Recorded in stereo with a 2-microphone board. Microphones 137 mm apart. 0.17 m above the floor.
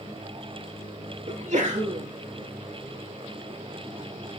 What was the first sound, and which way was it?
A sneeze, 60° right (ahead or behind).